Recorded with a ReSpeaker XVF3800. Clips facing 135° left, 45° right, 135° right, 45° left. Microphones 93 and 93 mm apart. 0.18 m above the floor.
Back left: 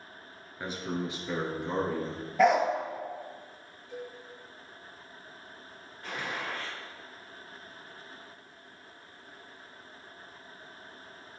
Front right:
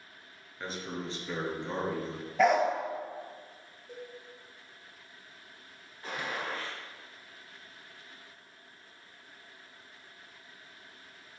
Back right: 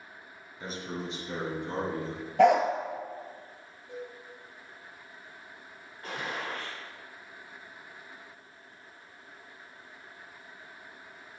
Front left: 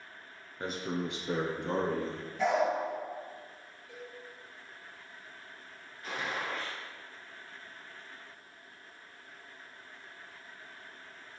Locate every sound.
0.6 s a man speaking: 60° left, 2 m; by 2.2 s 50° left, 3 m
2.4 s a dog barking: 135° right, 1.1 m
3.9 s a cowbell: 65° right, 3.5 m
6.0 s a gunshot: 100° right, 3 m